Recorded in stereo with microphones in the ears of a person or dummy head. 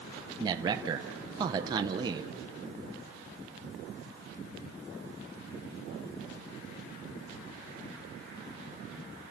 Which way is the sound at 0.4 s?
25° right (ahead or behind).